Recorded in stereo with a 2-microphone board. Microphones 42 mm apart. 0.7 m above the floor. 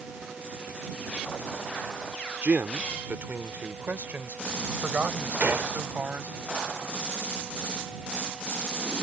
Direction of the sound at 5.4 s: 50° right (ahead or behind).